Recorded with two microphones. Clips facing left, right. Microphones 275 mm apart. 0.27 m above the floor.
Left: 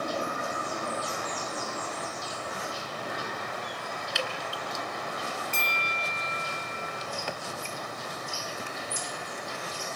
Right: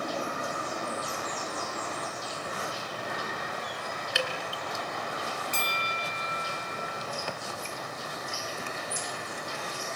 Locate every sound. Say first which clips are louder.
4.2 s dripping: right 2 dB; 70° right (ahead or behind), 2.5 m
5.5 s a bell: even; 40° right (ahead or behind), 1.8 m